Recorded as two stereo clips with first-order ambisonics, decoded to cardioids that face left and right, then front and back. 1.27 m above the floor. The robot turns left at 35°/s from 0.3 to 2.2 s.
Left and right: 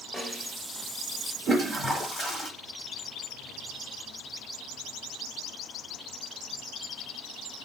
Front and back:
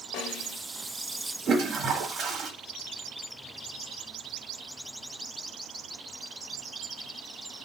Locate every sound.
0.1 s a snare drum: 10° left, 1.5 m; by 0.6 s straight ahead, 1.5 m
1.5 s a toilet flushing: straight behind, 1.2 m; by 2.5 s 155° left, 1.2 m